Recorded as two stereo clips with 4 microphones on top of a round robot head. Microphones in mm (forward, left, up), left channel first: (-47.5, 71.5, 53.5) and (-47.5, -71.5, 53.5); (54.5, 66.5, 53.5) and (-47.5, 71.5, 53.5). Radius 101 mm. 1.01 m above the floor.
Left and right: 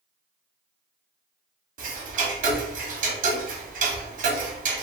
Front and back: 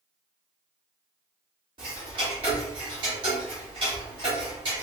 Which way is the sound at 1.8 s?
125° right.